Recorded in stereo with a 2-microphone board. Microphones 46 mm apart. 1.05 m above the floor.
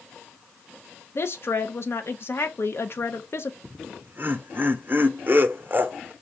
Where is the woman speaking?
60° left (ahead or behind), 0.7 m.